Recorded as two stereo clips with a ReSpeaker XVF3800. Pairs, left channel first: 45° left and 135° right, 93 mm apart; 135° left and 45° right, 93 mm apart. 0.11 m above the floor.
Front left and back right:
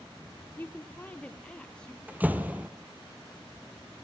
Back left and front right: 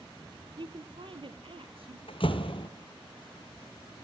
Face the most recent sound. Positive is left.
turn(degrees=155)